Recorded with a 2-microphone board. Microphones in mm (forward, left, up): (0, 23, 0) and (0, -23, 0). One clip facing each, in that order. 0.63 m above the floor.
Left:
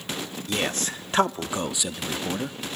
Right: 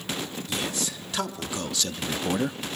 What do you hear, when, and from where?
0.5 s a man speaking: 50° left (ahead or behind), 1.1 m; by 2.6 s 25° right (ahead or behind), 0.6 m